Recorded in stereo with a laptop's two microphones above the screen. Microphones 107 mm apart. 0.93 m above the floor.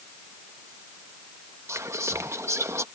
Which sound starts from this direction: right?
Whispering, at 1.7 s.